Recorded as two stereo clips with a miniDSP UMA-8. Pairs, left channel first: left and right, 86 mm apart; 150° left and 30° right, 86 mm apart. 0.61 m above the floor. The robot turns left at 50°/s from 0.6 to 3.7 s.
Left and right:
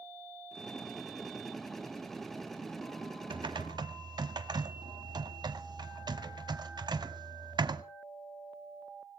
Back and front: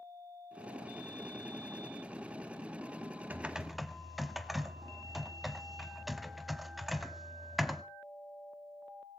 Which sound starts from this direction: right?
Typing on a keyboard, at 3.3 s.